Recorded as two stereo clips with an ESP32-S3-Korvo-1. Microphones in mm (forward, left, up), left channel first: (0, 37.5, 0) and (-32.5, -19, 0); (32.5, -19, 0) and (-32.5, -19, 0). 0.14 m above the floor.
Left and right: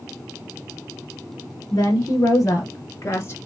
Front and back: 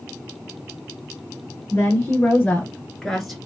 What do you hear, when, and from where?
1.7 s a woman speaking: 45° left, 2 m; by 3.4 s 90° left, 1.4 m